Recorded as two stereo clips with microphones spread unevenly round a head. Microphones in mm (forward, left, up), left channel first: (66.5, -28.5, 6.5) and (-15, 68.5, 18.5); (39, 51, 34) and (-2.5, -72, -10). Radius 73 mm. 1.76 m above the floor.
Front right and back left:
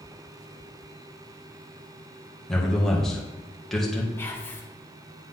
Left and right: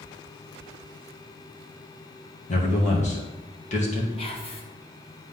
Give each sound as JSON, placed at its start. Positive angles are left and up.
{"t": 2.5, "sound": "a man speaking", "azimuth_deg": 35, "distance_m": 2.0}
{"t": 4.2, "sound": "whispering", "azimuth_deg": 25, "distance_m": 1.8}